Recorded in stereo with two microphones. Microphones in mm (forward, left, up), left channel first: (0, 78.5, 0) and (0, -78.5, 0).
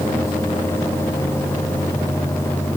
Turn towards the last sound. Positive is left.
No sound to turn to.